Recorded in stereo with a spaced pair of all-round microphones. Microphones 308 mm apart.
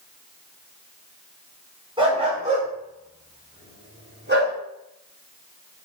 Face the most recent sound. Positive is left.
turn(degrees=-35)  # may be behind; listen again after turning